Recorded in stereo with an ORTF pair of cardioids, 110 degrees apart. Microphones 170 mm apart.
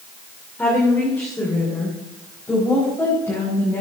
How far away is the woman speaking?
About 3.5 m.